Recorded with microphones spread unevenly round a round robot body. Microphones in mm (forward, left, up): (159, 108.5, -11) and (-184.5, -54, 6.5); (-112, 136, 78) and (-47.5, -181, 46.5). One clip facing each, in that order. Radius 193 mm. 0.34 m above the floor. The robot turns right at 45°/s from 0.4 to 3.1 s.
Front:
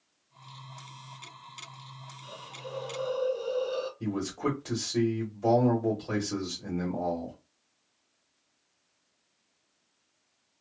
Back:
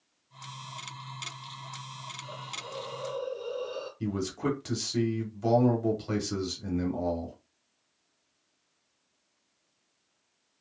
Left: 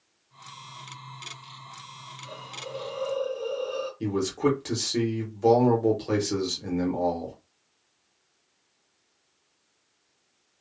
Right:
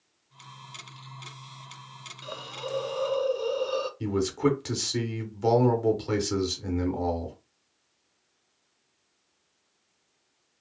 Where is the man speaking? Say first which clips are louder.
Back 2 dB, left 1 dB; 105° right, 1.0 m.